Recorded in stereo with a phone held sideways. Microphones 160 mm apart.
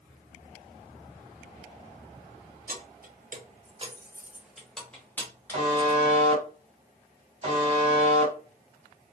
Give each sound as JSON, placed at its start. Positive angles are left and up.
{"t": 2.7, "sound": "keys jangling", "side_deg": -65, "distance_m": 0.7}
{"t": 5.5, "sound": "a buzzer", "side_deg": -40, "distance_m": 1.2}